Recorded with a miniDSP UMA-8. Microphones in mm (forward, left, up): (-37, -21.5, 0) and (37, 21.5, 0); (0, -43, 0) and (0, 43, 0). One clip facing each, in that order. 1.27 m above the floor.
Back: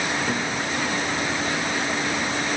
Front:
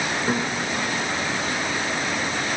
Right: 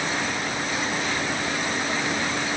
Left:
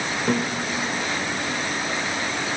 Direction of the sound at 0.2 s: 100° left.